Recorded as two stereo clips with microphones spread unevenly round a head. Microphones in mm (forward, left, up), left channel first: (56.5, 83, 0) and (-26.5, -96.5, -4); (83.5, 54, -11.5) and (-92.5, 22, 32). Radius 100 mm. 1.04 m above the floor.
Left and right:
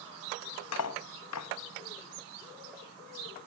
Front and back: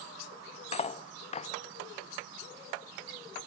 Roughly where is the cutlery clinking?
Left.